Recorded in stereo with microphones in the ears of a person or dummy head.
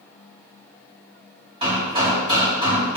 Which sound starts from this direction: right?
Hammering, at 1.6 s.